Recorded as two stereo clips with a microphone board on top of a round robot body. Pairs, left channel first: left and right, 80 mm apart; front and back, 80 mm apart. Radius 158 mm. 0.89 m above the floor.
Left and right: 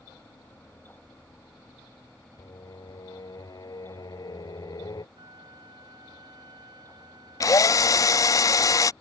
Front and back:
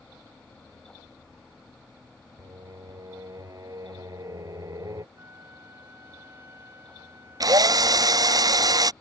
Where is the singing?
130° left.